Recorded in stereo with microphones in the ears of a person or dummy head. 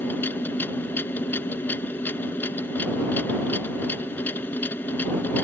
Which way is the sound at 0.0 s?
10° left (ahead or behind).